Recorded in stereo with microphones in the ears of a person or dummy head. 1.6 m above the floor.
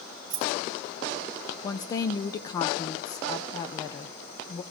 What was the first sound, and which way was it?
Keys jangling, 25° right (ahead or behind).